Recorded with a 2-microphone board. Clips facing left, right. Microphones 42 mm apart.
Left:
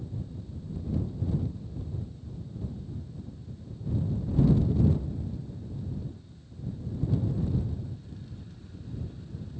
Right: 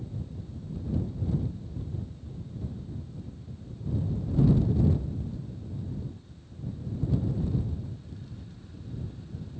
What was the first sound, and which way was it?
Only background noise.